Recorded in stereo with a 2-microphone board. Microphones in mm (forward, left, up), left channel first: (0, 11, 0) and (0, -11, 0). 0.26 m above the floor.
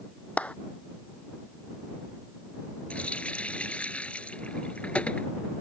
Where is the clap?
65° left (ahead or behind).